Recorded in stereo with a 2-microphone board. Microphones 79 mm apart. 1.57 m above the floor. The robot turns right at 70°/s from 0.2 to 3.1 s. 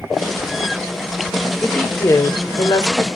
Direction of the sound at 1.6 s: 10° left.